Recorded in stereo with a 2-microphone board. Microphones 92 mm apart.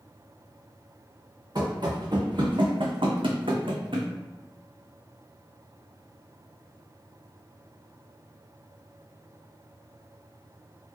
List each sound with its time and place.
1.6 s running footsteps: 50° right (ahead or behind), 1.4 m; by 4.1 s 70° right (ahead or behind), 1.2 m